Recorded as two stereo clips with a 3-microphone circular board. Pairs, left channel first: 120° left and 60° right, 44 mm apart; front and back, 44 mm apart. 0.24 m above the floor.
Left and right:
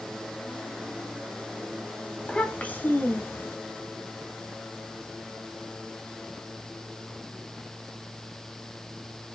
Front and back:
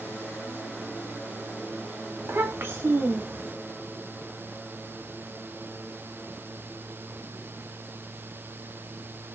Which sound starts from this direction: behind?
A child speaking, at 2.2 s.